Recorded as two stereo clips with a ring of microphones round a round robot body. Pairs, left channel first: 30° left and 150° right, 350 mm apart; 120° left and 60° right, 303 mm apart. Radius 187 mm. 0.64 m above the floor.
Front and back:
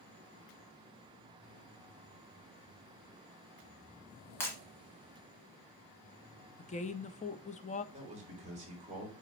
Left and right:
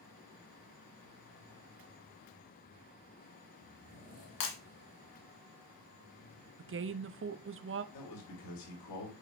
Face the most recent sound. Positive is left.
turn(degrees=140)